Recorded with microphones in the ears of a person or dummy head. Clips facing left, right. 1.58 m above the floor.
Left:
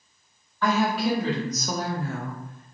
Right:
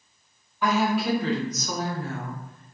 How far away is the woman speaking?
About 0.7 m.